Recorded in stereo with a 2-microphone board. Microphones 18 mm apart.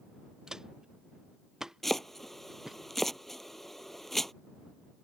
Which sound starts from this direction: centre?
Chopping, at 1.8 s.